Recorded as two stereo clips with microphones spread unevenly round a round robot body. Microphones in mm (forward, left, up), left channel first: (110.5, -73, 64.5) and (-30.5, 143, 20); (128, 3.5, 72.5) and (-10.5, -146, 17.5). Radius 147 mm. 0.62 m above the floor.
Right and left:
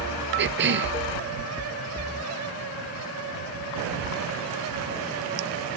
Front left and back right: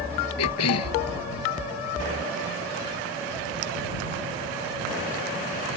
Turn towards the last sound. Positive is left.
turn(degrees=75)